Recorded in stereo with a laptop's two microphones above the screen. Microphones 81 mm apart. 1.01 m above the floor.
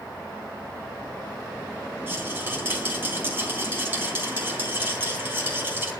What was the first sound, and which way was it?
A rattle, 25° right (ahead or behind).